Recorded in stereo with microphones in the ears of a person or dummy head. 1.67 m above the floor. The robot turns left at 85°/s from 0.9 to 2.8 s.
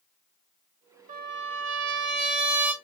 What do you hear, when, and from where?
1.1 s a trumpet: 40° right, 0.9 m; by 2.7 s straight behind, 0.9 m